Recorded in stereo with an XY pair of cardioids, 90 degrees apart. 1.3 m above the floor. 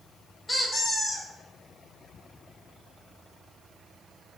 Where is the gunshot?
No gunshot in this recording.